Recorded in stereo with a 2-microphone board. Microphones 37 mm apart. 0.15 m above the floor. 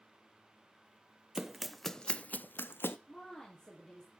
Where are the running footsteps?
15° right (ahead or behind), 0.8 m; by 3.0 s 85° left, 0.7 m.